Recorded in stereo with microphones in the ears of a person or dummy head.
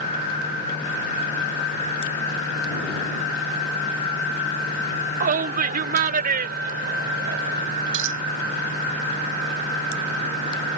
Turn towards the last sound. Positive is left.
turn(degrees=-70)  # may be behind; listen again after turning